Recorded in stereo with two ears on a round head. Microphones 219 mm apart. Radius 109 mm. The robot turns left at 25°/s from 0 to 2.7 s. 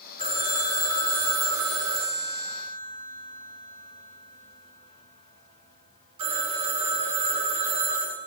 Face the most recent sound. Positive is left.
turn(degrees=-95)